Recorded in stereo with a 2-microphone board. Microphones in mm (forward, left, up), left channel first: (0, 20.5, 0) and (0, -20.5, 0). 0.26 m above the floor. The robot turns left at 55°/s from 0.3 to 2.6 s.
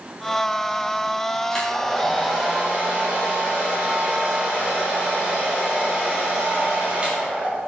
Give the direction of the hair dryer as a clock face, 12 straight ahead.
11 o'clock.